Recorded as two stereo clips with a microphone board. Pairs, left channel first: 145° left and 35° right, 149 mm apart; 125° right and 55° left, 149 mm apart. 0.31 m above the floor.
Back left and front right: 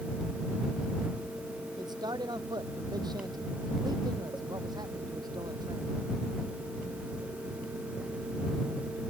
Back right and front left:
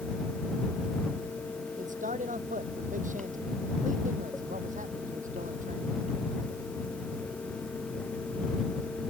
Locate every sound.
1.8 s a man speaking: 25° left